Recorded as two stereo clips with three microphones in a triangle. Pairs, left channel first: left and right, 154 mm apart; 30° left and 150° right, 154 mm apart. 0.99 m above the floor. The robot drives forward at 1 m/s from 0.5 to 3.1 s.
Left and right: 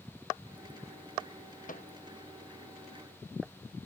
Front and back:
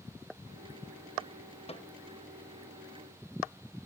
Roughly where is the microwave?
Left.